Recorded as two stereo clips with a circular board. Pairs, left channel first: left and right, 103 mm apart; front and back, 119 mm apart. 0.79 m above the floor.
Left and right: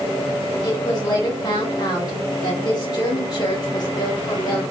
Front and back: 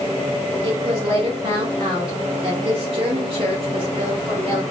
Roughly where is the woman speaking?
Behind left.